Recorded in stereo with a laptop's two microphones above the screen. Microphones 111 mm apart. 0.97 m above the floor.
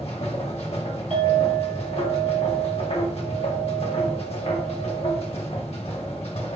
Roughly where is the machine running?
Left.